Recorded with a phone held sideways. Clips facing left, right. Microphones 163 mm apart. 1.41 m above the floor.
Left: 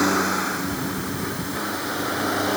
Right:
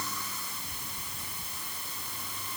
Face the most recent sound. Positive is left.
turn(degrees=80)